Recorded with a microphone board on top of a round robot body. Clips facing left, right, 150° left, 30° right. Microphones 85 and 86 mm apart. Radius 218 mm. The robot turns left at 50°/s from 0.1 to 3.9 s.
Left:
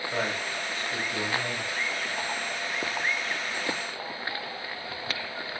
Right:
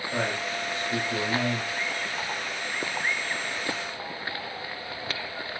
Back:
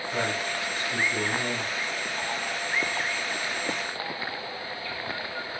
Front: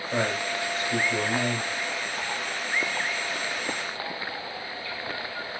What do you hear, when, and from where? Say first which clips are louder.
0.1 s a man speaking: right 2 dB, front 3 dB; 5° left, 2.5 m; by 1.7 s 70° right, 2.5 m